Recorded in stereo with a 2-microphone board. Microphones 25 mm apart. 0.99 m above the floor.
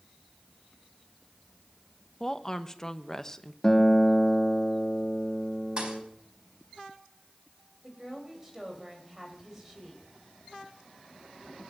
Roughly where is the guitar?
Centre.